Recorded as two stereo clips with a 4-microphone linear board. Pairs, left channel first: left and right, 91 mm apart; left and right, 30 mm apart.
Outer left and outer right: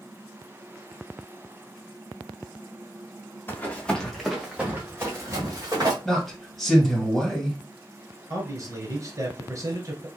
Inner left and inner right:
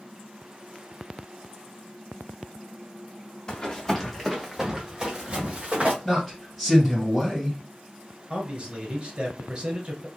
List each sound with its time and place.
3.5 s running footsteps: 25° left (ahead or behind), 1.3 m; by 6.0 s 45° right (ahead or behind), 1.8 m
6.0 s a man speaking: centre (ahead or behind), 1.9 m
8.3 s a man speaking: 35° right (ahead or behind), 1.3 m